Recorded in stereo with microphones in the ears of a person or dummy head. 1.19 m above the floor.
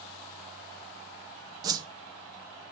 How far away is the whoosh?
About 1.4 m.